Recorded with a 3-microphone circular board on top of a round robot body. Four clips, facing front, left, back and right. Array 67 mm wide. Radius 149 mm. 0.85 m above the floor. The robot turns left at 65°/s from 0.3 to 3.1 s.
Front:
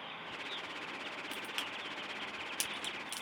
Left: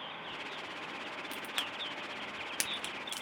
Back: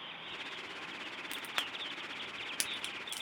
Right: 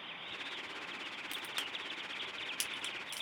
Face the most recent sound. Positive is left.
turn(degrees=70)